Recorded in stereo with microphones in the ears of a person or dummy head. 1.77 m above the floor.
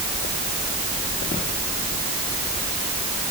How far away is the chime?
No chime in this recording.